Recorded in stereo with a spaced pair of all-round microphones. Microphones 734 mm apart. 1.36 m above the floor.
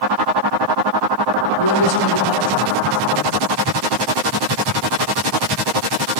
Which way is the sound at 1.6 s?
35° left (ahead or behind).